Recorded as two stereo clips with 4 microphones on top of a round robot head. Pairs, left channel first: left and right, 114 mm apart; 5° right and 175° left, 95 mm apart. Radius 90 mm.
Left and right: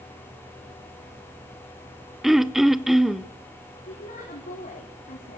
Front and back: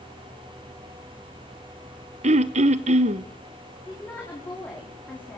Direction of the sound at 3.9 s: 70° left.